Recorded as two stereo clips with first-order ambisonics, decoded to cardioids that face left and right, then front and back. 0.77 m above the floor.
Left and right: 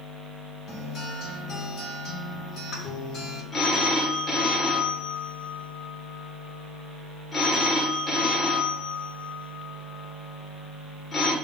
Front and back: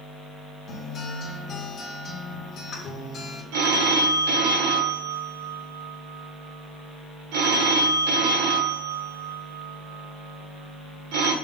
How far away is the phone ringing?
About 1.2 m.